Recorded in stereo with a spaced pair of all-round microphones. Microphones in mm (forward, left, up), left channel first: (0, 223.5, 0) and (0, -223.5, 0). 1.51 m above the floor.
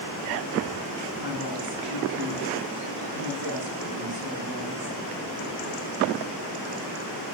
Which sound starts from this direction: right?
A woman speaking, at 1.2 s.